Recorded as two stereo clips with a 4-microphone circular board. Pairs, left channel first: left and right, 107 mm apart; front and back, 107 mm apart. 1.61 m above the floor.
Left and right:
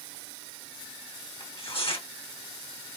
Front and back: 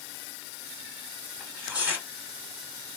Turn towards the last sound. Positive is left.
turn(degrees=105)